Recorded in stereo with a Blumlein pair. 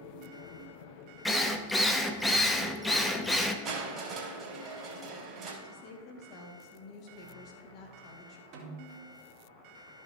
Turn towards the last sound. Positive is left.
turn(degrees=-40)